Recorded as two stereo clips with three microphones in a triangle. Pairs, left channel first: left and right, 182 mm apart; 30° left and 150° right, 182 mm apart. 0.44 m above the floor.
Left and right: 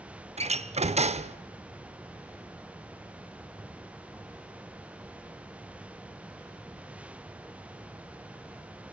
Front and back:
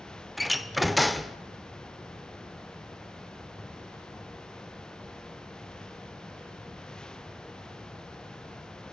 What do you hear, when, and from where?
0.4 s a door slam: 60° right, 0.6 m